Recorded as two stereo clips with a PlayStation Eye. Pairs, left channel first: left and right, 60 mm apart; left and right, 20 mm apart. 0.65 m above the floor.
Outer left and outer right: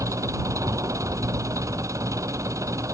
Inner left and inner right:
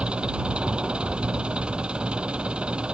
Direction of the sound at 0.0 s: 60° right (ahead or behind).